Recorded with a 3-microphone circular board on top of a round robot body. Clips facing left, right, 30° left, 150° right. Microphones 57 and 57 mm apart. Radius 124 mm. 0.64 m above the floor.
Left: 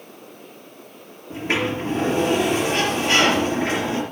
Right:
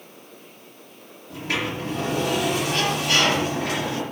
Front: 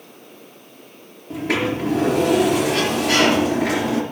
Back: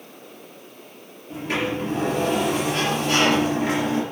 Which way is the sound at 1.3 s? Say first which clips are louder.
Left 4 dB, front 4 dB; 30° left.